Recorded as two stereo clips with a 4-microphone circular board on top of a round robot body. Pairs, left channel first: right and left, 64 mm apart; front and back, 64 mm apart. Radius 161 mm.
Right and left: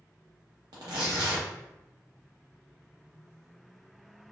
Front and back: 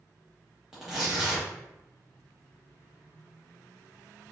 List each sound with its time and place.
0.7 s tearing paper: 95° left, 0.6 m